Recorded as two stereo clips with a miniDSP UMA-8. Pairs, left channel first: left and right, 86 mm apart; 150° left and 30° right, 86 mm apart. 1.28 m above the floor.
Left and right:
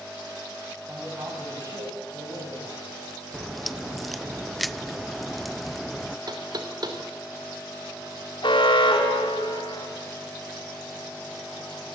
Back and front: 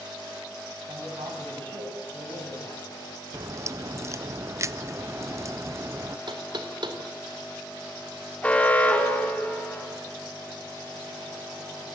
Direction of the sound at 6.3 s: 55° right.